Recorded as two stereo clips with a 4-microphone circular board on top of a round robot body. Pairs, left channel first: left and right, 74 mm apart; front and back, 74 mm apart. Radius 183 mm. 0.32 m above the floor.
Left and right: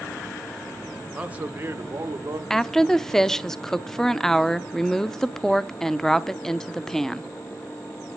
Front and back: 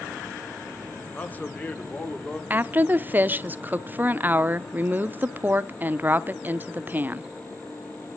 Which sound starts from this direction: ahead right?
A man speaking, at 1.1 s.